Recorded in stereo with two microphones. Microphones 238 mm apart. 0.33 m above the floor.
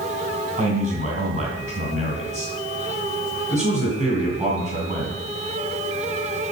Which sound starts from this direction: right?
A man speaking, at 0.6 s.